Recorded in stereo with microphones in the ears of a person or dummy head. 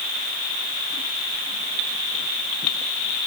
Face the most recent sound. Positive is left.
No sound to turn to.